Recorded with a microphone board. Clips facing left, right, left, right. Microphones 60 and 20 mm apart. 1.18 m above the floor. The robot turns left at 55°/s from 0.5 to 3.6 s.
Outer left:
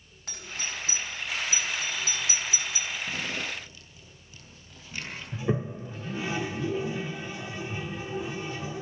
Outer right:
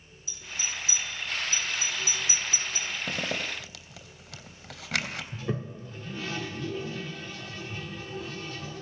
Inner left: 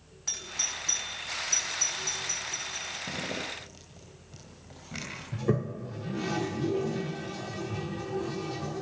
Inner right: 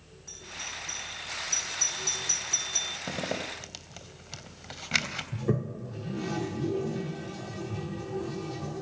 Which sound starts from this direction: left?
A doorbell, at 0.3 s.